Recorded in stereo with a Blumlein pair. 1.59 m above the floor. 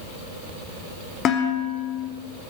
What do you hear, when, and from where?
1.2 s dishes clattering: 30° left, 3 m